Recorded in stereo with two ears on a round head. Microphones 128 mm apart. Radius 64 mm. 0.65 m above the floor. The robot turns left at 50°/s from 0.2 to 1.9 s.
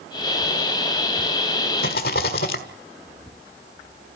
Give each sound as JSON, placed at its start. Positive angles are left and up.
{"t": 1.8, "sound": "a rattle", "side_deg": 75, "distance_m": 1.7}